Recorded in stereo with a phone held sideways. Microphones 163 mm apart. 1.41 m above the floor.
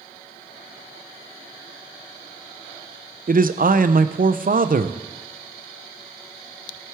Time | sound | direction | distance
3.3 | a man speaking | 60° right (ahead or behind) | 0.6 m